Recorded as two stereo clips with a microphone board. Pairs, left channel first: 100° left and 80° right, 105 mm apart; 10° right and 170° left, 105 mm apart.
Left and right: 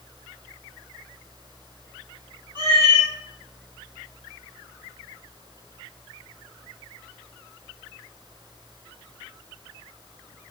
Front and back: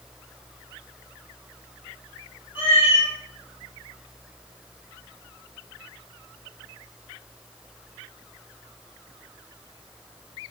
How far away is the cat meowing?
About 1.9 m.